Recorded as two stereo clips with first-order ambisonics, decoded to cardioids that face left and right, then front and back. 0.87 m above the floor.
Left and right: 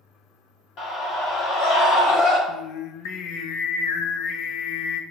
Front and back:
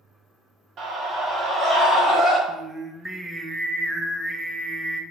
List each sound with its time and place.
0.8 s a scream: 130° left, 1.9 m; by 2.4 s 75° left, 3 m
2.5 s singing: 95° left, 0.5 m